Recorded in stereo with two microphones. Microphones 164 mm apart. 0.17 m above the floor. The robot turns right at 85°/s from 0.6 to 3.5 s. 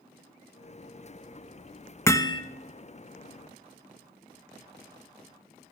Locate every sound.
2.1 s hammering: 15° left (ahead or behind), 0.9 m; by 2.4 s 30° left (ahead or behind), 0.9 m